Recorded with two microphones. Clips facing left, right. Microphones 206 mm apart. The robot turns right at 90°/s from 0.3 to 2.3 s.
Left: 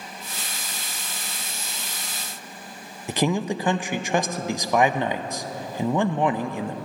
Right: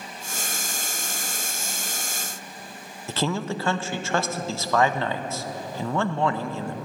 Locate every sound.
3.1 s a man speaking: 15° left (ahead or behind), 0.5 m